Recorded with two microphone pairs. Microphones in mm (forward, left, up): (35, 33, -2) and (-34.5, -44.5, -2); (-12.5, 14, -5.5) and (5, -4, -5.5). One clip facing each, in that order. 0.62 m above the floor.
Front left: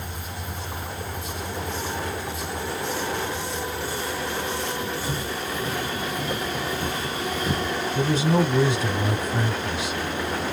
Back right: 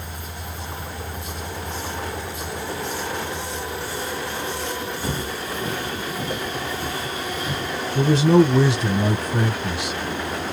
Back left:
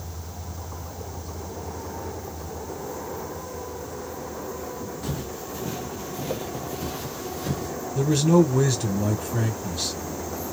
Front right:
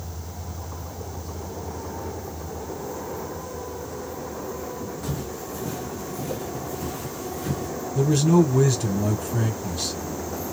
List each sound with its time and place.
5.0 s footsteps: 150° right, 0.9 m; by 7.8 s 95° left, 1.2 m
8.0 s a man speaking: 145° right, 1.5 m